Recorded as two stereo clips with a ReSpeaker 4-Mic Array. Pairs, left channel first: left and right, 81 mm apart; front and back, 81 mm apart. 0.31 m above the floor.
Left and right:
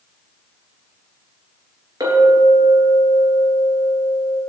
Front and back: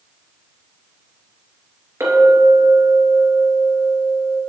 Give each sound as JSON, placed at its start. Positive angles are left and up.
{"t": 2.0, "sound": "a clink", "azimuth_deg": -125, "distance_m": 3.5}